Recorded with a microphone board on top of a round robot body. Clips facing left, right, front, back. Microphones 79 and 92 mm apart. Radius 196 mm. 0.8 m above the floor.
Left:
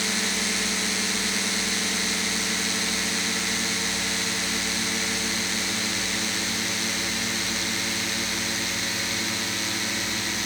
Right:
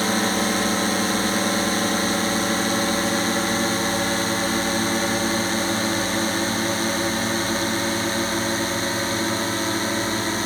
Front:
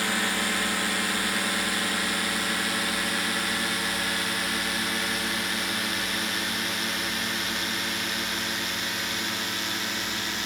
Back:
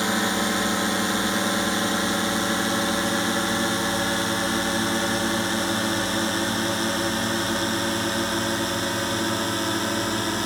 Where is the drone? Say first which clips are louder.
Right 8 dB, back 5 dB; 120° right; by 10.5 s 135° right.